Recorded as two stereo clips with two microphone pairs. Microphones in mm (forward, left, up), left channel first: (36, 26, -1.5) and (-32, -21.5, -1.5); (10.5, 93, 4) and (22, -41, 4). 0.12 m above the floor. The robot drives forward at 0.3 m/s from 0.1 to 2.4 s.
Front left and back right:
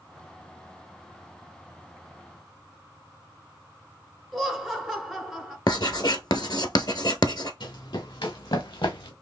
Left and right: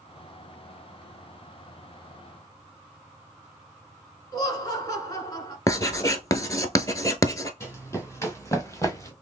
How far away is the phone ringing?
No phone ringing in this recording.